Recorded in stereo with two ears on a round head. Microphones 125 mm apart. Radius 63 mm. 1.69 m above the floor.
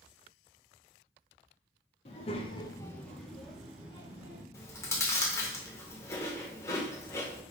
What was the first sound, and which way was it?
A child speaking, 45° left (ahead or behind).